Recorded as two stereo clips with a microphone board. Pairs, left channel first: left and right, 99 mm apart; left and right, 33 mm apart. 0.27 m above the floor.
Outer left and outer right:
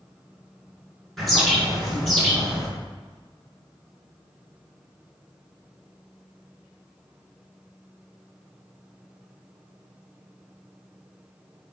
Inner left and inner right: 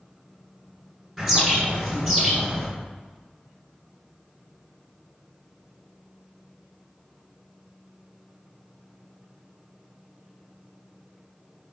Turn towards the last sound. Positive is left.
turn(degrees=0)  # may be behind; listen again after turning